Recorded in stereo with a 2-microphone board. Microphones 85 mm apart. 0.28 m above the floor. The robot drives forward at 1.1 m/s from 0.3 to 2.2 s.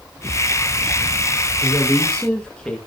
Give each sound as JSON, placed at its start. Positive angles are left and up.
{"t": 1.6, "sound": "a woman speaking", "side_deg": 10, "distance_m": 6.0}